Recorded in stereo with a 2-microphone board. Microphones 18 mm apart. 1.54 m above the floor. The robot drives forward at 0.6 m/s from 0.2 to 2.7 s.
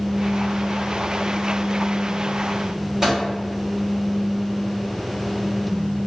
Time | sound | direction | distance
3.0 | a microwave | 20° right (ahead or behind) | 1.6 m